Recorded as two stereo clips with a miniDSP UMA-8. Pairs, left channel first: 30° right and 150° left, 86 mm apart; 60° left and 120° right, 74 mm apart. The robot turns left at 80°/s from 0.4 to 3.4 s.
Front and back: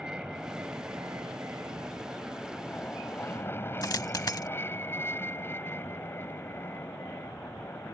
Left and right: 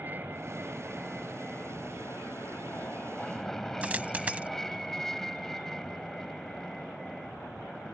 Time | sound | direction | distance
0.0 | an aircraft | 140° right | ?
3.8 | a dropped coin | 55° right | ?